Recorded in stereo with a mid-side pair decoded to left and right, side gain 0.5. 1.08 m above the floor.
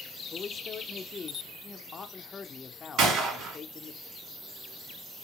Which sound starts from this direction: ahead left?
A man speaking, at 0.3 s.